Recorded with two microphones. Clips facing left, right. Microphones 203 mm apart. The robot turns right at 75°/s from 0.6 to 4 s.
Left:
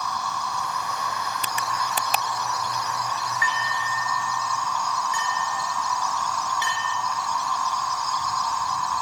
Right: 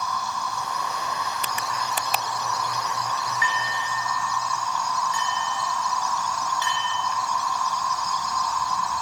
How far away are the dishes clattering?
About 4 m.